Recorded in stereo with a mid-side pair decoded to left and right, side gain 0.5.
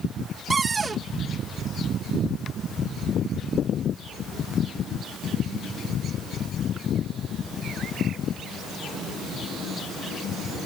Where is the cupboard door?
30° right.